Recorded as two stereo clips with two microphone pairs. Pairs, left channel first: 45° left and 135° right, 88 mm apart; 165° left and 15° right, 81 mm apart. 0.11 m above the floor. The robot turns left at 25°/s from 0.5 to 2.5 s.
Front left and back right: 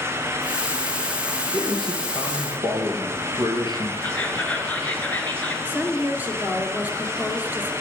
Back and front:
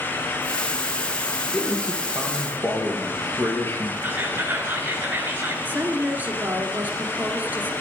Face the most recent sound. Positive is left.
turn(degrees=-75)